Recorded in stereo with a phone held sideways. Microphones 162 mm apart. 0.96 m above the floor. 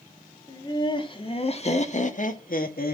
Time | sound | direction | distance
0.5 | laughter | 25° left (ahead or behind) | 2.5 m